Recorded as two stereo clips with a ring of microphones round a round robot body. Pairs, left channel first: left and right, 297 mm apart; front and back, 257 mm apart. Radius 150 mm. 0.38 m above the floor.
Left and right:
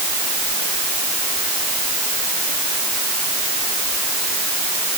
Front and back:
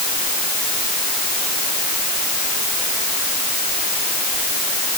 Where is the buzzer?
I don't hear a buzzer.